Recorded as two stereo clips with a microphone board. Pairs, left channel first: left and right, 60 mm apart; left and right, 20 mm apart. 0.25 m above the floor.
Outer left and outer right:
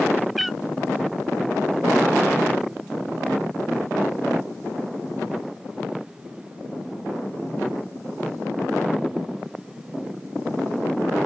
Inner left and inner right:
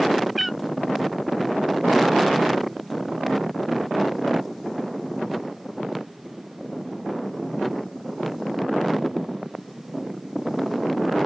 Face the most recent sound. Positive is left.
turn(degrees=0)  # may be behind; listen again after turning